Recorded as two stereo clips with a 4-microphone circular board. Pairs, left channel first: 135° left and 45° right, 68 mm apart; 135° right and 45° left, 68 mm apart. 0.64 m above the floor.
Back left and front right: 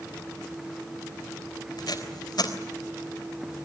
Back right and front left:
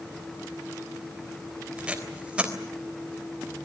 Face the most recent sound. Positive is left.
turn(degrees=120)